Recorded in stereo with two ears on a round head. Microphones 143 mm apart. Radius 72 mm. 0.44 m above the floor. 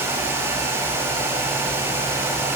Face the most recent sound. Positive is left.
No sound to turn to.